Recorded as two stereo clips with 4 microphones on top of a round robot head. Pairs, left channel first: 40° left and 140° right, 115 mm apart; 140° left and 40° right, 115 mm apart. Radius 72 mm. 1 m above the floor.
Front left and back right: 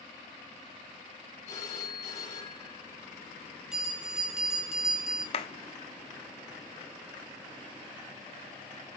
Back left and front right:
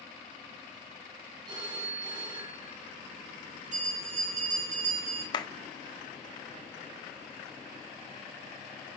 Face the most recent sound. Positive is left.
turn(degrees=80)